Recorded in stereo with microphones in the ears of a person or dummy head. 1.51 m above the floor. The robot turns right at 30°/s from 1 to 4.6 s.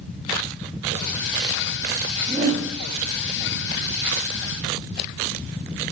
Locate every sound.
2.2 s a whoosh: 10° left (ahead or behind), 6.5 m; by 2.7 s 25° left (ahead or behind), 6.5 m